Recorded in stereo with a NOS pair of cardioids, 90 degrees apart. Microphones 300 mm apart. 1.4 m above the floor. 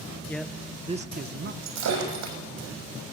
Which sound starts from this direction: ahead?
A man speaking, at 0.3 s.